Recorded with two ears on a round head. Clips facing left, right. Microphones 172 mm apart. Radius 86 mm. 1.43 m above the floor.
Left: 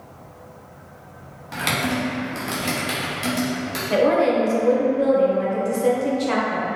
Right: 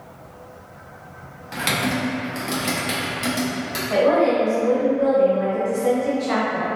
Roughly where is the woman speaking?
Left.